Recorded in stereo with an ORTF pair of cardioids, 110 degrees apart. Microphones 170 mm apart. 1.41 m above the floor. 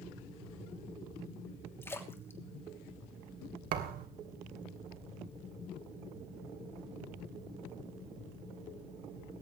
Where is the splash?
15° left, 3 m.